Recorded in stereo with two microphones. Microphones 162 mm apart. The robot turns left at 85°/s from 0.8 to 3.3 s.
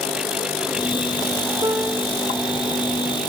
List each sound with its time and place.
1.6 s a piano: 155° right; by 2.2 s 160° left